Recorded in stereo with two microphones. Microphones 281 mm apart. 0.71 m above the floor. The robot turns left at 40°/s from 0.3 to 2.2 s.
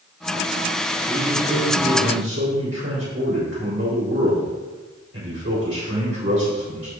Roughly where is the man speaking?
Ahead.